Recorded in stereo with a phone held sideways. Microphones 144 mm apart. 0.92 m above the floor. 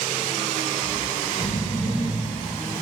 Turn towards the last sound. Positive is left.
turn(degrees=50)  # may be behind; listen again after turning